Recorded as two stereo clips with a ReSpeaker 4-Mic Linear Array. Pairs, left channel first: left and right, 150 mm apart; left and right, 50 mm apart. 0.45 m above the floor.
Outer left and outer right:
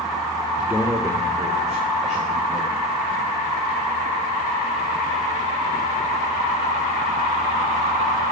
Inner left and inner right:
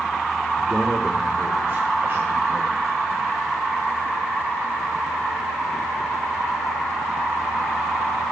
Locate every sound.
0.6 s a man speaking: 10° right (ahead or behind), 0.9 m; by 3.3 s 65° right (ahead or behind), 2 m